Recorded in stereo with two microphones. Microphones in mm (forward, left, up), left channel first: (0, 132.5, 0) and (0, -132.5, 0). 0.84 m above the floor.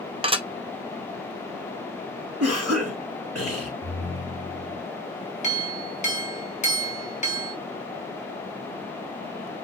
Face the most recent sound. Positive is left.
turn(degrees=25)  # may be behind; listen again after turning